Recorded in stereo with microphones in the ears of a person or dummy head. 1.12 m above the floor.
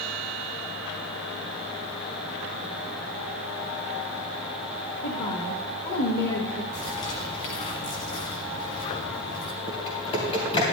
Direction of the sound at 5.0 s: 45° left (ahead or behind).